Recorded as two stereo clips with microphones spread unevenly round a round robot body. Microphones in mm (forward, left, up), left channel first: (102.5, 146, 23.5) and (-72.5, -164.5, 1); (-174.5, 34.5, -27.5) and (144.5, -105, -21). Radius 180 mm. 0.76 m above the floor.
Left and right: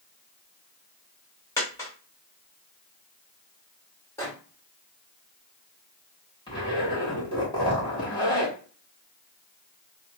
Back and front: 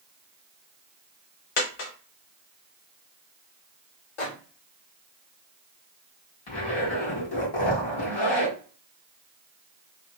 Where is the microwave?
145° left, 1.4 m.